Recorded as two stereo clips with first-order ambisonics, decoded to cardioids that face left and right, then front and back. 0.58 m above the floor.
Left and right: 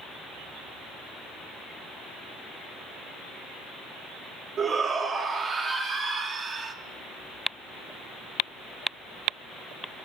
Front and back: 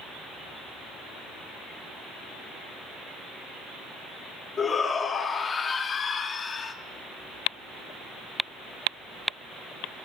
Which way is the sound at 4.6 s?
50° right.